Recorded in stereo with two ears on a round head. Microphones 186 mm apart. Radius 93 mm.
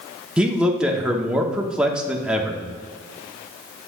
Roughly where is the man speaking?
Centre.